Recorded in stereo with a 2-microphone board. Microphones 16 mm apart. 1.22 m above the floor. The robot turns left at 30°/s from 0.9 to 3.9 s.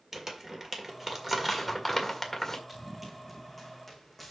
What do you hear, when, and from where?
0.1 s crumpling: 25° right (ahead or behind), 1.9 m; by 2.6 s 20° left (ahead or behind), 1.9 m
2.7 s running footsteps: 15° right (ahead or behind), 4.5 m; by 4.3 s 10° left (ahead or behind), 4 m